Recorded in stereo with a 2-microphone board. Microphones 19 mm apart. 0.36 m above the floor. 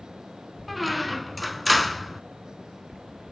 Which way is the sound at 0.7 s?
5° left (ahead or behind).